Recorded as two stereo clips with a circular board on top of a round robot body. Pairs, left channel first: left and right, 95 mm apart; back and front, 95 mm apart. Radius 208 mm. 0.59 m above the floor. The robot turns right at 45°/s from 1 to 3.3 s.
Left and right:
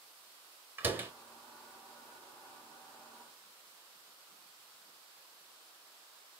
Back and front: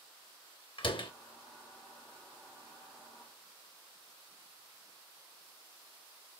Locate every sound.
0.8 s a door slam: 160° right, 1.4 m; by 1.1 s 155° right, 1.4 m